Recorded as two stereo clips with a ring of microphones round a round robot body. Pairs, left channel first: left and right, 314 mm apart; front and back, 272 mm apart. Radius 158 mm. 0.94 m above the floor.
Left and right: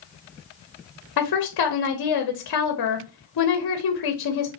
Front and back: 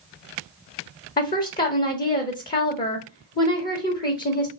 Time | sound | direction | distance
1.2 | a woman speaking | 60° left | 0.8 m